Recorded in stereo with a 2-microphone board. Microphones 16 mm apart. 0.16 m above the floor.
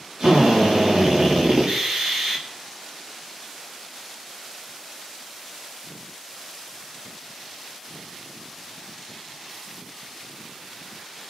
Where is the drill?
85° right, 7 m.